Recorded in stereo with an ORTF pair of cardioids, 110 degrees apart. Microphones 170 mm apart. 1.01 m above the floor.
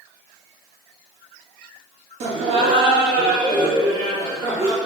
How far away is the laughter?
About 1.2 m.